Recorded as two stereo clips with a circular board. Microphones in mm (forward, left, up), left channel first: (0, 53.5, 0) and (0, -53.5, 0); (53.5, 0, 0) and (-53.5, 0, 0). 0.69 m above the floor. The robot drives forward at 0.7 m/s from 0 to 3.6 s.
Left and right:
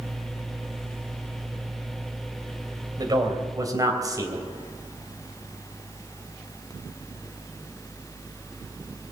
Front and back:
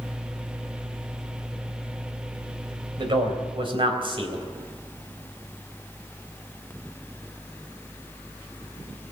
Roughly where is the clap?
No clap in this recording.